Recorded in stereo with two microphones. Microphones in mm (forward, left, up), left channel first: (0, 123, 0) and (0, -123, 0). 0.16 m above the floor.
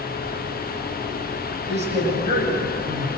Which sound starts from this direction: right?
A man speaking, at 1.7 s.